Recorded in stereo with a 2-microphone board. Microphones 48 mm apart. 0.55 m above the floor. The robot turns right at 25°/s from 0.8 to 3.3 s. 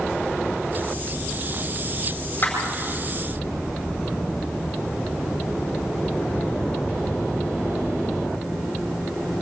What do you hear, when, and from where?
2.4 s a clap: 40° left (ahead or behind), 8 m